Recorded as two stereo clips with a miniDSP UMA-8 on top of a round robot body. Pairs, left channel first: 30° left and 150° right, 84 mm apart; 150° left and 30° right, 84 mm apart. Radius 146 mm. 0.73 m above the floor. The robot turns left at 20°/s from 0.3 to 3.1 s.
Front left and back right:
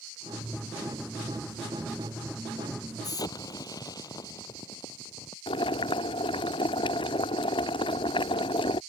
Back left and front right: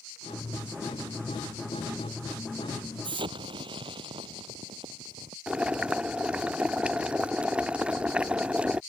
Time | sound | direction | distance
3.0 | an explosion | 10° right | ?
5.5 | boiling | 45° left | ?